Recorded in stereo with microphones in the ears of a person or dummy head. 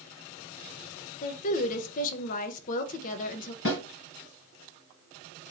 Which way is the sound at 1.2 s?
45° left (ahead or behind).